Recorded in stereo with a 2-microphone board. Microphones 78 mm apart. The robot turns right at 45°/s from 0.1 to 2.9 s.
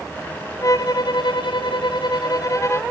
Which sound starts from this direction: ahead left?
A violin, at 0.6 s.